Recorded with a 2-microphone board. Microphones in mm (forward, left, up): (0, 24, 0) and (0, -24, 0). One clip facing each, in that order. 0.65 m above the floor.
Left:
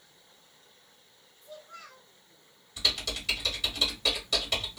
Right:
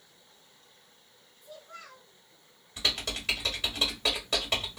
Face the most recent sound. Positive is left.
turn(degrees=-30)  # may be behind; listen again after turning